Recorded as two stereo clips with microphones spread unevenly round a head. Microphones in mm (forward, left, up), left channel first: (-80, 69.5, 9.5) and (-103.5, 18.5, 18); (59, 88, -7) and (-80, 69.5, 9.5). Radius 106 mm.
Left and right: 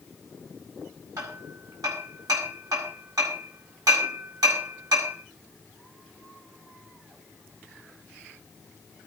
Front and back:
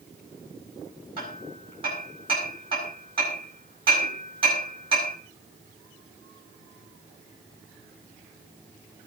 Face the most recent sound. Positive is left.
turn(degrees=-105)